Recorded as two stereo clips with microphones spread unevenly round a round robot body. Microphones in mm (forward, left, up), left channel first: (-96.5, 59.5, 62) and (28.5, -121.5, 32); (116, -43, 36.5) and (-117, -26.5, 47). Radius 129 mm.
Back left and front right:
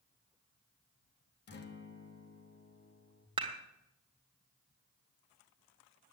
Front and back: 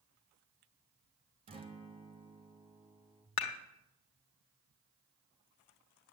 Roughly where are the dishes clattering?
Ahead.